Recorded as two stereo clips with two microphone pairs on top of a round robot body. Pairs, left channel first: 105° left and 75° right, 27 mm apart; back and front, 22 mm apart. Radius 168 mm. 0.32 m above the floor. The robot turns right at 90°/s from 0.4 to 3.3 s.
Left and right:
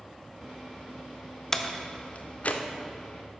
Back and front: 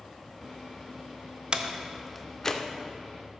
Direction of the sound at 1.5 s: 30° left.